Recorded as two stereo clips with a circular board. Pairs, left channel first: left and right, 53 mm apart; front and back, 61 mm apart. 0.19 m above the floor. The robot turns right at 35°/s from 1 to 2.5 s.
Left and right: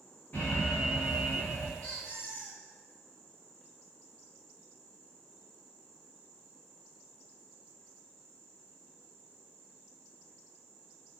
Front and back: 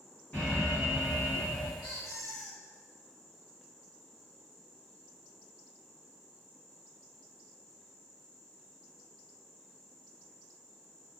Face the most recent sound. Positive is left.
turn(degrees=50)